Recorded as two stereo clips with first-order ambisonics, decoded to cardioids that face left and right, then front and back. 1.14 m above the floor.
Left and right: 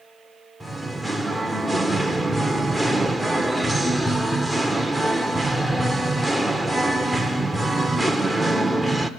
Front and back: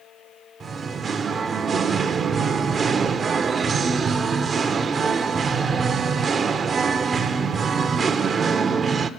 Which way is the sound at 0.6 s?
175° right.